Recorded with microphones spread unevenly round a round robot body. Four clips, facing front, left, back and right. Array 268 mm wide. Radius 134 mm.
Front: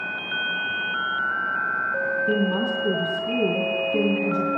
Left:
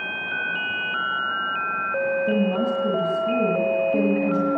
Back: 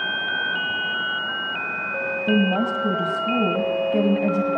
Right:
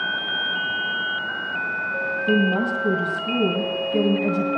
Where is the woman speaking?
170° left, 1.9 m.